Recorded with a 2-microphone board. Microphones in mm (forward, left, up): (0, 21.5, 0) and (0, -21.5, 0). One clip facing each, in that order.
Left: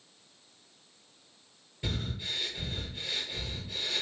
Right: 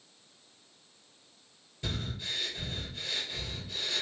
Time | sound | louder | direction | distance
1.8 | breathing | left 1 dB | 15° left (ahead or behind) | 3 m